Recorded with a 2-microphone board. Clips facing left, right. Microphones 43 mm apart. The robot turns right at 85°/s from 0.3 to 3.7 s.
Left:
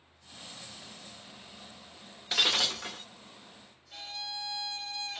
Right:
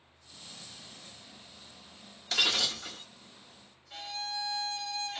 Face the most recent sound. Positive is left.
turn(degrees=-60)  # may be behind; listen again after turning